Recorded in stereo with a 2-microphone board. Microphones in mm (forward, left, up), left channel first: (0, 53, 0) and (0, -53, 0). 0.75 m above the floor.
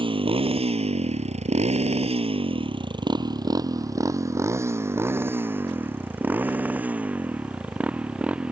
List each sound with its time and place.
0.0 s a motorcycle: 50° right (ahead or behind); by 8.5 s 10° right (ahead or behind)